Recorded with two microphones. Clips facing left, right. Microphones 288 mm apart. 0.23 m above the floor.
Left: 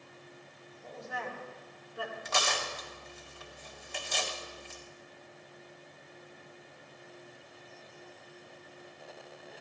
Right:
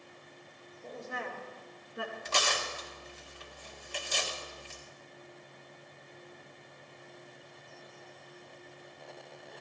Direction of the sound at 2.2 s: 40° right (ahead or behind).